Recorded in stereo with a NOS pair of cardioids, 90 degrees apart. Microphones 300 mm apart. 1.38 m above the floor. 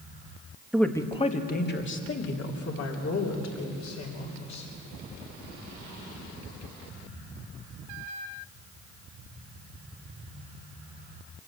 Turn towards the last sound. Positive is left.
turn(degrees=65)